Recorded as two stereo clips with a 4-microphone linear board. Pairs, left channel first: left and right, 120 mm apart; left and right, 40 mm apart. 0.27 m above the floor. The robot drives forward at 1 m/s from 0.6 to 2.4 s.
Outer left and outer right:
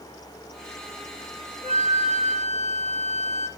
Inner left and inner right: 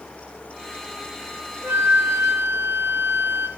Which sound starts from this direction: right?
A flute, at 1.6 s.